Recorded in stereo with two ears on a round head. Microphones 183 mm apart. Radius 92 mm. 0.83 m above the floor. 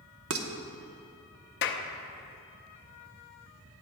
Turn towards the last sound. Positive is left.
turn(degrees=60)  # may be behind; listen again after turning